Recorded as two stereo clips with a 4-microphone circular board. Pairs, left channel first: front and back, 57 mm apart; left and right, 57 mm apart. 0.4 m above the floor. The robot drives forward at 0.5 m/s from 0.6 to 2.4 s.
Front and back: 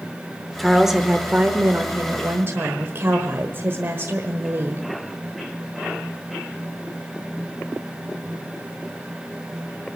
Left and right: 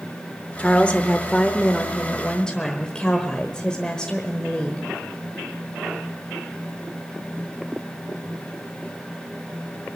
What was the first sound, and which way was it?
A woman speaking, 85° left.